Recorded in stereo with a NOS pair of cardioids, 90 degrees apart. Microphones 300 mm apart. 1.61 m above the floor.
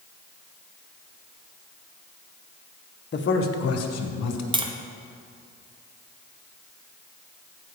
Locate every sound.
3.1 s a man speaking: 35° left, 1.0 m; by 4.4 s 65° left, 1.7 m
4.5 s tapping: 15° right, 0.8 m